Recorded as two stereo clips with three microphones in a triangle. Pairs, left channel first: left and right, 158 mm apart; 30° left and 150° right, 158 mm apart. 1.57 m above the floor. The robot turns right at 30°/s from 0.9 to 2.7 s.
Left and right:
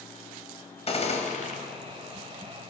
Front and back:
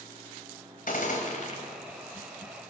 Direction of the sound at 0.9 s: 45° left.